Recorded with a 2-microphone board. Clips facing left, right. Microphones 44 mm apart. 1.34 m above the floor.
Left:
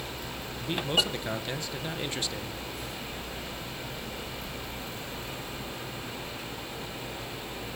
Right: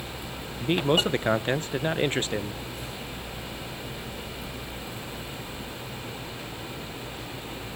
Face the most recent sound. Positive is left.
turn(degrees=-35)  # may be behind; listen again after turning